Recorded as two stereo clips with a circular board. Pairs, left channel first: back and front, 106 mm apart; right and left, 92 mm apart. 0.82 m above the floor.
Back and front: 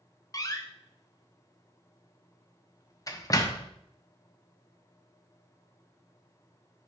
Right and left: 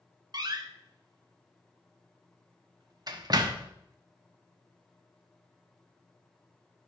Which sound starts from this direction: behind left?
A door slam, at 0.3 s.